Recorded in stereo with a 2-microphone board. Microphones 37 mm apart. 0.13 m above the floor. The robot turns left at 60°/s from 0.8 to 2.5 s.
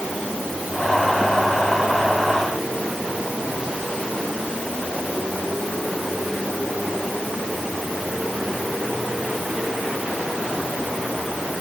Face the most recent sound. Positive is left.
No sound to turn to.